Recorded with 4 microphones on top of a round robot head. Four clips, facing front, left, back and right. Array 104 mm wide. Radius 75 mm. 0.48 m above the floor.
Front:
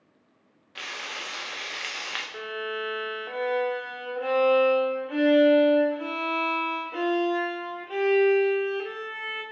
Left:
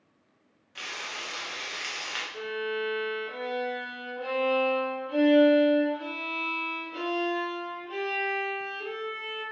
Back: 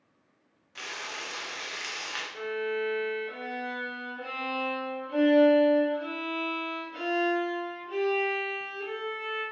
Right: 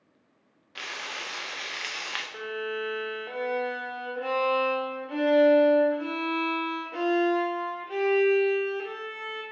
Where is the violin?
35° right, 0.6 m.